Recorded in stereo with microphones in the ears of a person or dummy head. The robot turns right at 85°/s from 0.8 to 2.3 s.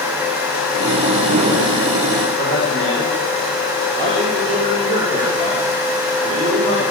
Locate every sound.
2.4 s a man speaking: 55° right (ahead or behind), 7.5 m